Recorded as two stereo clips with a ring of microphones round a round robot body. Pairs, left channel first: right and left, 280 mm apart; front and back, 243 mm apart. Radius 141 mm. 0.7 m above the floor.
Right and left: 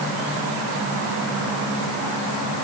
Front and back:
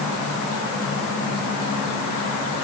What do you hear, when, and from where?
Only background noise.